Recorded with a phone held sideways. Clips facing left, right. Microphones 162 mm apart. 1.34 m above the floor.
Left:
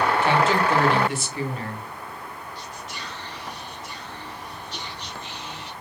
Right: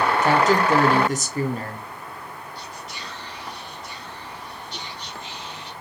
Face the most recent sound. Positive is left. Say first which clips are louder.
# even
turn(degrees=-10)  # may be behind; listen again after turning